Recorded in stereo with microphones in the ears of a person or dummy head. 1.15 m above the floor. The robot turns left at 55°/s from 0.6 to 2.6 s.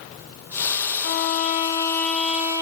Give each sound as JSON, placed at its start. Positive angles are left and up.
{"t": 1.0, "sound": "a violin", "azimuth_deg": 60, "distance_m": 1.1}